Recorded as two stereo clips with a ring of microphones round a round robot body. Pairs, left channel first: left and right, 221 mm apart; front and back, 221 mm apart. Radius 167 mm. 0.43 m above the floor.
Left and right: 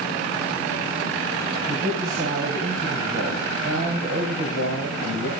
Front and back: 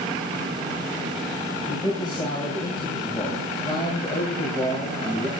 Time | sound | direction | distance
1.7 | a man speaking | 75° right | 3.5 m